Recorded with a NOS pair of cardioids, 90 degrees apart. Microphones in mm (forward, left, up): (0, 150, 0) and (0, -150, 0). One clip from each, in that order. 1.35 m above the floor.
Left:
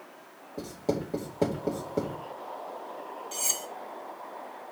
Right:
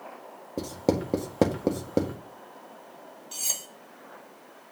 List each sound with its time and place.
0.6 s writing: 60° right, 1.9 m
3.3 s cutlery clinking: 5° left, 1.6 m